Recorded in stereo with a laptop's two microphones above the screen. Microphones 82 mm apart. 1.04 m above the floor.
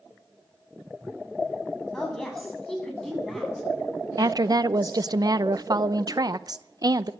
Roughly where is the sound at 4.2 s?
Right.